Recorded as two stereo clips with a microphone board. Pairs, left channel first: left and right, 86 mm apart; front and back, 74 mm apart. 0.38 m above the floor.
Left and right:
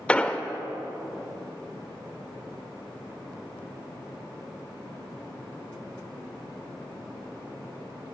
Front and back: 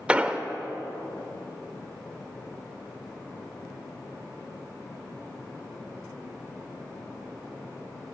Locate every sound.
0.1 s an explosion: 140° left, 0.6 m